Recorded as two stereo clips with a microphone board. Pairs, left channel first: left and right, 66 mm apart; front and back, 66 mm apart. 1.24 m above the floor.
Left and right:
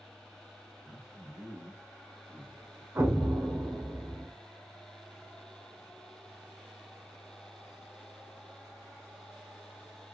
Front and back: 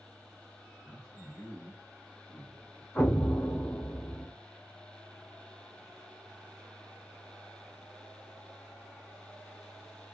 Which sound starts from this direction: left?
A man speaking, at 0.8 s.